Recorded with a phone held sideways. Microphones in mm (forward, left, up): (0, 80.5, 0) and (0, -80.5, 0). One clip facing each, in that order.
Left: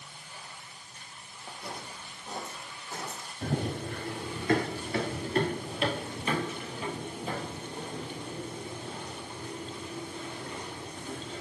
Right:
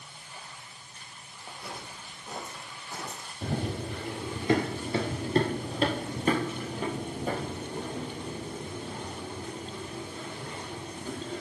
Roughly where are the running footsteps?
Centre.